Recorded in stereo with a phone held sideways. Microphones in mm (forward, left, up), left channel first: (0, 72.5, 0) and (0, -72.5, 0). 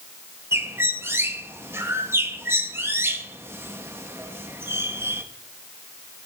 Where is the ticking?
I don't hear ticking.